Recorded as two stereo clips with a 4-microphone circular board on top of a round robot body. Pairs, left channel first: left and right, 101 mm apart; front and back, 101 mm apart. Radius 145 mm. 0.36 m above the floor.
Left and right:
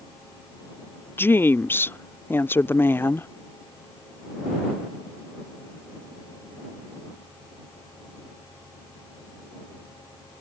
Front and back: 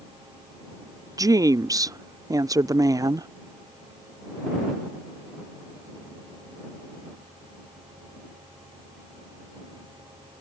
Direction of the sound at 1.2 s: 150° left.